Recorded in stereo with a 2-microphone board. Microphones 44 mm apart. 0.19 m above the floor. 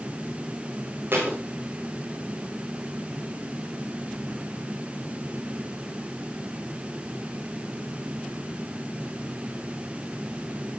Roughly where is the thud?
Right.